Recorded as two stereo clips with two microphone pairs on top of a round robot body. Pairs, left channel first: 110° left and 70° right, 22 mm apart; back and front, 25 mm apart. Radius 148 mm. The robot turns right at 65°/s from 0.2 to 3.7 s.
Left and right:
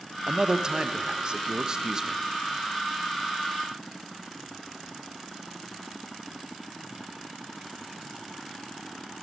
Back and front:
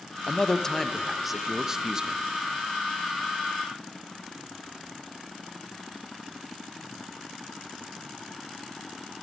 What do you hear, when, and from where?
0.3 s a man speaking: 130° right, 0.6 m; by 2.2 s straight ahead, 0.6 m